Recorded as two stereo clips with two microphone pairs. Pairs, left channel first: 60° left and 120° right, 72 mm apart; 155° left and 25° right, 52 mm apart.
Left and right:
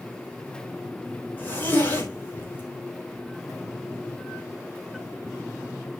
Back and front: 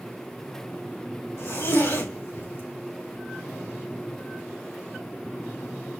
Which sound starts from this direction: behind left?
A zipper, at 1.4 s.